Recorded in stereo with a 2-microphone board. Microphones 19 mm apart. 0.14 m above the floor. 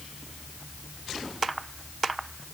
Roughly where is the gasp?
I don't hear a gasp.